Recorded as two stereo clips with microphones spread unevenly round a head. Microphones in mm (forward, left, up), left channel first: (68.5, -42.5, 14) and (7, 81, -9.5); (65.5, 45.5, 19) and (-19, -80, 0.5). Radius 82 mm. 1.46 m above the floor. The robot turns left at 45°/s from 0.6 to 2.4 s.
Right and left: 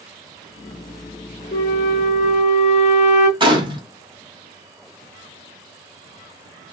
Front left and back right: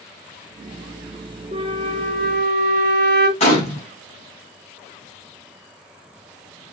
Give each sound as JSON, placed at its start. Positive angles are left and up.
{"t": 1.5, "sound": "a flute", "azimuth_deg": -70, "distance_m": 0.9}
{"t": 3.4, "sound": "a gunshot", "azimuth_deg": 65, "distance_m": 1.2}